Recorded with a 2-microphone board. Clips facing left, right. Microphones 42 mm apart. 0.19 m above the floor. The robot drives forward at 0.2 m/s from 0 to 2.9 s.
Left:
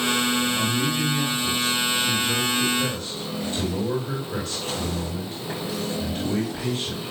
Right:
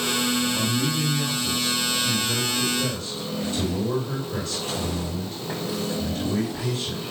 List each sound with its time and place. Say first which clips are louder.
0.5 s a man speaking: left 1 dB; 60° left (ahead or behind), 5 m